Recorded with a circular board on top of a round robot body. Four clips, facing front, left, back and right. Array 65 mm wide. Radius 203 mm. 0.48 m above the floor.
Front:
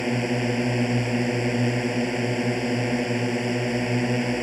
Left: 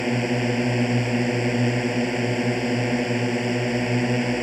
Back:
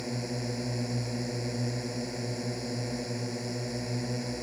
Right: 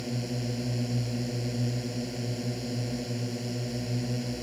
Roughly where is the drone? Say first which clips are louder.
Left 11 dB, front 10 dB; ahead left.